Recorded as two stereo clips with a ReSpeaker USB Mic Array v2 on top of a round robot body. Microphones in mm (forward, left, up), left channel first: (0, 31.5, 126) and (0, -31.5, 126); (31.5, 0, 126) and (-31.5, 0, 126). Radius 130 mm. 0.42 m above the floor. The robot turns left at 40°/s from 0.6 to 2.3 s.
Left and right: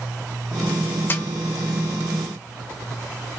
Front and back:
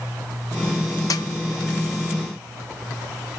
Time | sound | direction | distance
1.1 | a snare drum | 30° left | 0.7 m